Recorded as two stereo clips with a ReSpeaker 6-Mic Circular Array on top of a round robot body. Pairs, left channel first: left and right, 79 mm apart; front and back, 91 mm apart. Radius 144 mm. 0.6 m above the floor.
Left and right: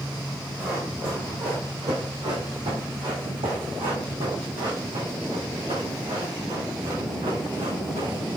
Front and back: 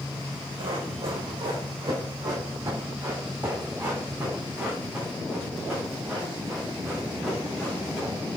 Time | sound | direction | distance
0.6 | running footsteps | 160° right | 1.5 m